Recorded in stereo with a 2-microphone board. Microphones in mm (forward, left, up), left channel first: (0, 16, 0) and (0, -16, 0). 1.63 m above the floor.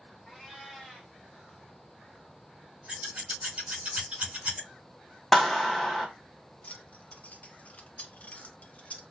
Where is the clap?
5° left (ahead or behind), 1.4 m.